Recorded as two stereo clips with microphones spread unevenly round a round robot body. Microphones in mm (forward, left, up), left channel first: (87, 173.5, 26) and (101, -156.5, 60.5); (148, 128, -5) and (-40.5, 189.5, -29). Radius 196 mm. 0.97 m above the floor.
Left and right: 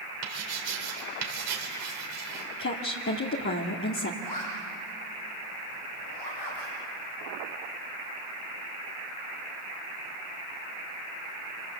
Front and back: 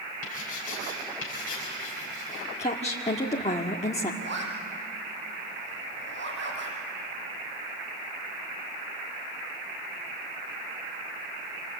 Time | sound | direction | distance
0.2 | writing | 65° right | 4 m
2.6 | a woman speaking | 40° left | 1.8 m
4.2 | a zipper | 135° left | 6 m